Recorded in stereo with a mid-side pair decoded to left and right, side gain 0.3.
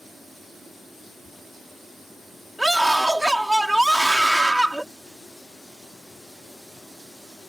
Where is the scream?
15° right.